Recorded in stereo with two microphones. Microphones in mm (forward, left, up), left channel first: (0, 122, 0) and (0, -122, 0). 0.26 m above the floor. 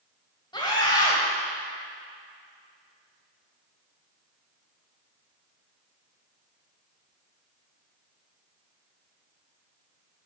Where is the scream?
20° left (ahead or behind), 1.5 m.